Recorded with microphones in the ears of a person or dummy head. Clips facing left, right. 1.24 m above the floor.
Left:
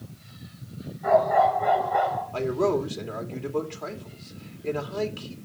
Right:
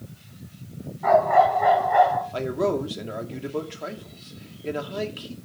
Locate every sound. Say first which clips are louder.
1.0 s a dog barking: right 2 dB; 75° right (ahead or behind), 4 m
2.3 s a man speaking: even; 15° right (ahead or behind), 2 m